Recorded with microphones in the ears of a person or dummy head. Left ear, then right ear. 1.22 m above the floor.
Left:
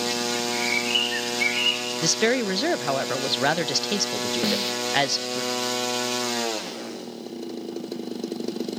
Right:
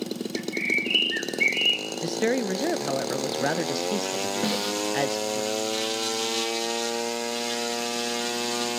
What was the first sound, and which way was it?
A bird, 15° right (ahead or behind).